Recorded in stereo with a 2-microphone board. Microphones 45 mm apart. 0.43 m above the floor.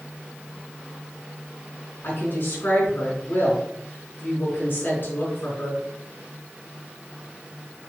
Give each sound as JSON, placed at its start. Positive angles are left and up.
{"t": 2.0, "sound": "a woman speaking", "side_deg": 45, "distance_m": 4.5}